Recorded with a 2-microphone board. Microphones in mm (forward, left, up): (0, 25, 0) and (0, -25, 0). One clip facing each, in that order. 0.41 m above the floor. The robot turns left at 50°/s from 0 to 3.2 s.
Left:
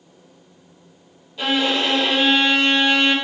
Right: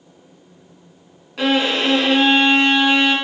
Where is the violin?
90° right, 1.0 m; by 3.1 s 175° right, 1.0 m.